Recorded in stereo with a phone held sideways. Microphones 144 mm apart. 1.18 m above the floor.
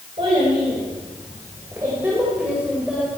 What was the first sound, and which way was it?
A child speaking, 40° right (ahead or behind).